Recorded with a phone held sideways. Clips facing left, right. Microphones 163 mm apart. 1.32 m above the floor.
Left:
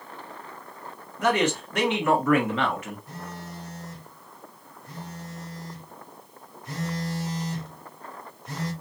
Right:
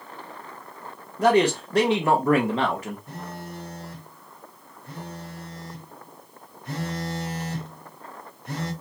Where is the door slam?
I don't hear a door slam.